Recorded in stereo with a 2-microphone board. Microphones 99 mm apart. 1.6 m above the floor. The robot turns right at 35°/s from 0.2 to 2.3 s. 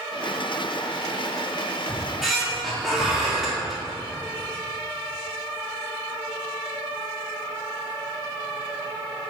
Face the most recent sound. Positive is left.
turn(degrees=0)  # may be behind; listen again after turning